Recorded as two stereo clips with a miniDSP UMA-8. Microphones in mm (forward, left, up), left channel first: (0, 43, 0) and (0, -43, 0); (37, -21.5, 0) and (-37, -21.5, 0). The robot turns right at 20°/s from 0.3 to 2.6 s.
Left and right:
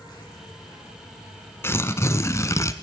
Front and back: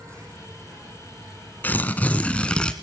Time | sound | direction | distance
0.0 | an insect | 130° left | 7 m
1.6 | tearing paper | 50° left | 0.8 m